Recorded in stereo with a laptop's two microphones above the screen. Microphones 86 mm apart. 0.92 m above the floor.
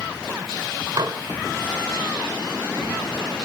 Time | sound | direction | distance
1.0 | dishes clattering | 60° right (ahead or behind) | 2.5 m